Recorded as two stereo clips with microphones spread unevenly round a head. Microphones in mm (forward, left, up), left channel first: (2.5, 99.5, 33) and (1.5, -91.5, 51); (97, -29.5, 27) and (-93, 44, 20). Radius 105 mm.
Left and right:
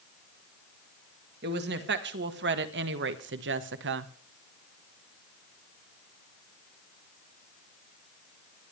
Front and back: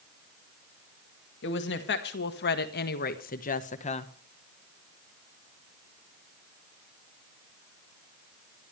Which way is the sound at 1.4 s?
55° right.